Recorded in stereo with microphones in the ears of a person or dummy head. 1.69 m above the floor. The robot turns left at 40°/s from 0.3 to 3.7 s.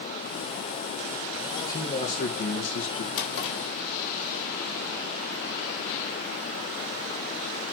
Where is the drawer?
75° left (ahead or behind), 3.5 m; by 3.6 s 70° left (ahead or behind), 3.5 m.